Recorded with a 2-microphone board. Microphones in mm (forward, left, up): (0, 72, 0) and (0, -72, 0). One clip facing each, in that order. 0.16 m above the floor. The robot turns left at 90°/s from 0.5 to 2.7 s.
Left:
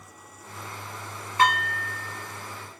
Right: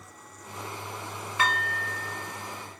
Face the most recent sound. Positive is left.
turn(degrees=-25)  # may be behind; listen again after turning